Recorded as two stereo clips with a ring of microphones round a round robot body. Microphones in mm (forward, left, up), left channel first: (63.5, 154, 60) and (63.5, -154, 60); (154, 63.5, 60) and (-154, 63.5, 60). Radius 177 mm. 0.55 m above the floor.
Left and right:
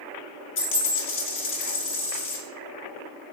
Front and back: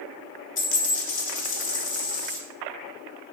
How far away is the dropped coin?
About 1.1 m.